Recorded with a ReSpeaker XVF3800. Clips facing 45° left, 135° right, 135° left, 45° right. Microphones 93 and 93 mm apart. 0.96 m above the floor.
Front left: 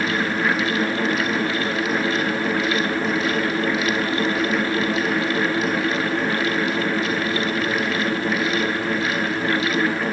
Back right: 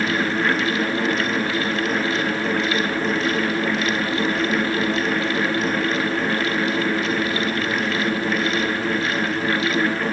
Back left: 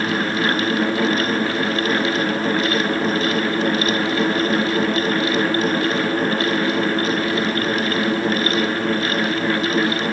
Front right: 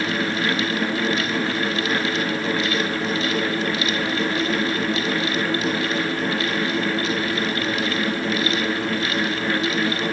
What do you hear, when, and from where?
Only background noise.